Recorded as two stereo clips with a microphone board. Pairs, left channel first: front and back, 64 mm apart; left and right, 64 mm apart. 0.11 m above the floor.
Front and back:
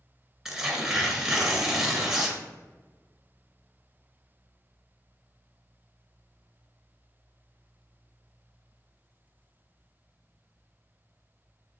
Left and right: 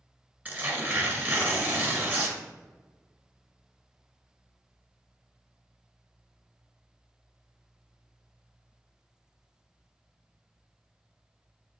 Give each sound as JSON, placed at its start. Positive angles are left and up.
{"t": 0.5, "sound": "tearing paper", "azimuth_deg": -95, "distance_m": 1.6}